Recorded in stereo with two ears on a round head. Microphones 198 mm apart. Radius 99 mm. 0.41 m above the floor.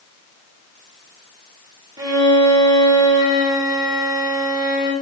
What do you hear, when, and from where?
2.0 s a violin: 20° right (ahead or behind), 1.6 m